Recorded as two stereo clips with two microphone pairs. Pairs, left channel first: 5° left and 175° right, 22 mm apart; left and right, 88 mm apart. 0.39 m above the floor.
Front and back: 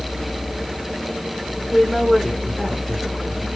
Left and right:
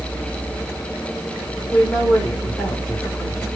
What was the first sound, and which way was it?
A woman speaking, 30° left.